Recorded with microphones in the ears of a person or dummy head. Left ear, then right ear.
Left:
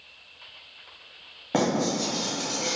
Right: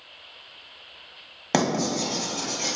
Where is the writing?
70° right (ahead or behind), 1.2 m.